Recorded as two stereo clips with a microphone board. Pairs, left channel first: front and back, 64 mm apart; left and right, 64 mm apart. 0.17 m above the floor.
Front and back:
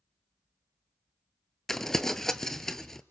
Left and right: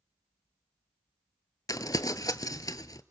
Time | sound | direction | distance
1.7 | crumpling | 85° left | 0.8 m